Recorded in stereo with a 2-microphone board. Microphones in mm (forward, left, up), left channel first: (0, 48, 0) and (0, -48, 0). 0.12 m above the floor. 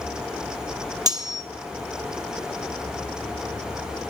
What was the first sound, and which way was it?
Cutlery clinking, 40° right (ahead or behind).